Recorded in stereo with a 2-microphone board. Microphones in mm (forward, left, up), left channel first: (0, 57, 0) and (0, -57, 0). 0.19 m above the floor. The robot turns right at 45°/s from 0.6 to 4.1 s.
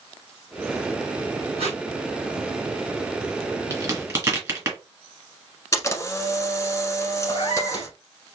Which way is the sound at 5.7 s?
25° left (ahead or behind).